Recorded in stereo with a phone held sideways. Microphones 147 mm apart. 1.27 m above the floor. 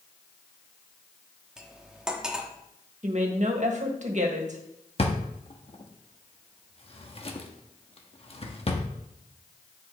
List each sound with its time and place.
1.6 s cutlery clinking: 5° right (ahead or behind), 1.2 m
3.0 s a woman speaking: 55° right (ahead or behind), 1.8 m
5.0 s a drawer: 40° left (ahead or behind), 1.1 m